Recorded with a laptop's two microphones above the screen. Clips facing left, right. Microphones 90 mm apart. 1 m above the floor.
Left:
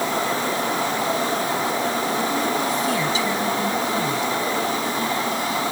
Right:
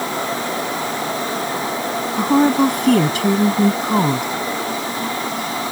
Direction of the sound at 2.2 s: 65° right (ahead or behind).